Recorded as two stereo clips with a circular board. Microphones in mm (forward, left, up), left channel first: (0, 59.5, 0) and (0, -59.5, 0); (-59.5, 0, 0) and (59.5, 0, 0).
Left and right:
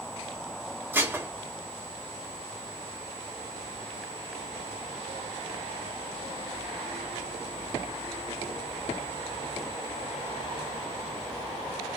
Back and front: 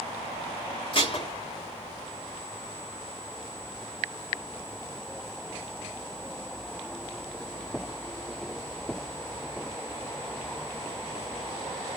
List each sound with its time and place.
0.9 s dishes clattering: 155° right, 1.1 m